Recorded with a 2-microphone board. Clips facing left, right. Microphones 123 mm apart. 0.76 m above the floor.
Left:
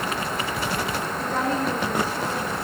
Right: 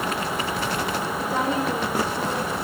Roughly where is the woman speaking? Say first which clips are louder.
Even; centre.